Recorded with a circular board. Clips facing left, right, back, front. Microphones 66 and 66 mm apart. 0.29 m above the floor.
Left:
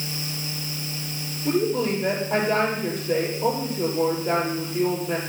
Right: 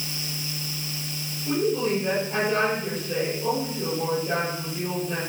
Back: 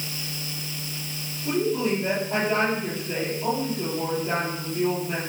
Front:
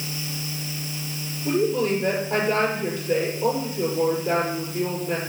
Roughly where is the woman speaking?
Ahead left.